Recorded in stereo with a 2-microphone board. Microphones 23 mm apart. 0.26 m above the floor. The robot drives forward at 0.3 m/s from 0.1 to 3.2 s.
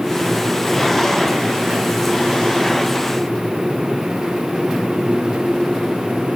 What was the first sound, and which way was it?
Only background noise.